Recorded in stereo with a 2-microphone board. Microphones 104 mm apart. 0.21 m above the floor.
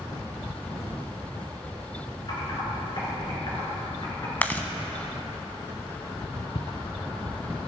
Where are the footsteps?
50° left (ahead or behind), 0.9 m; by 7.7 s 20° right (ahead or behind), 1.3 m.